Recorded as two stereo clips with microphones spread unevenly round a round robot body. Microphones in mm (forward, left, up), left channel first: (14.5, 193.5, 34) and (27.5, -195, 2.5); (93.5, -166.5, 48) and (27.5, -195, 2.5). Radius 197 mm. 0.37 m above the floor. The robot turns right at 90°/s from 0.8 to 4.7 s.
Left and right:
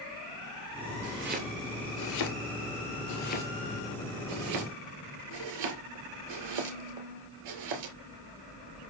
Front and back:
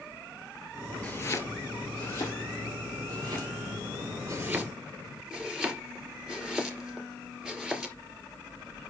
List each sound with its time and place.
1.0 s chopping: 45° right, 2 m; by 8.0 s 75° right, 2 m